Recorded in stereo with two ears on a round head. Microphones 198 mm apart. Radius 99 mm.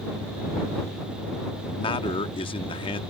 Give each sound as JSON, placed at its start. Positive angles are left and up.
{"t": 1.6, "sound": "a man speaking", "side_deg": 25}